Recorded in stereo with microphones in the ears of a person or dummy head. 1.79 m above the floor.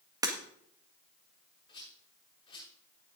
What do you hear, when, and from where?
0.2 s breaking glass: 25° right (ahead or behind), 1.7 m
1.7 s a rattle: 20° left (ahead or behind), 6.5 m